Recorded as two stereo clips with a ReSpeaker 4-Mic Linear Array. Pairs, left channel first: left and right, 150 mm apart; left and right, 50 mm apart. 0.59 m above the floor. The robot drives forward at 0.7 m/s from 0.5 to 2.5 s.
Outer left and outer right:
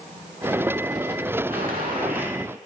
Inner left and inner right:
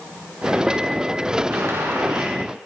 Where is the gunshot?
75° right (ahead or behind), 7 m; by 2.4 s 70° right (ahead or behind), 7 m.